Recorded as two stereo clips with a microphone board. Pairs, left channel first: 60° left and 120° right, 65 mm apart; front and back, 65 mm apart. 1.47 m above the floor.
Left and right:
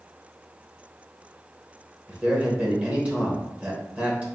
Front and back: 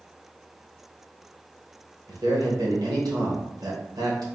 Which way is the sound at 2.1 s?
170° left.